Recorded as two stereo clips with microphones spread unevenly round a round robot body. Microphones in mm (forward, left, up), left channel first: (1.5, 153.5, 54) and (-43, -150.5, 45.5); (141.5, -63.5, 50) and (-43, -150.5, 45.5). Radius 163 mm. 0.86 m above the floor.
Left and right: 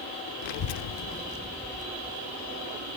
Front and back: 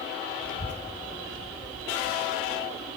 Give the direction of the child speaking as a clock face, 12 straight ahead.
10 o'clock.